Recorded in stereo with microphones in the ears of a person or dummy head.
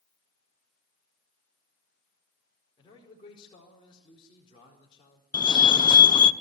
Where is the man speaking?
25° left (ahead or behind), 4.5 m.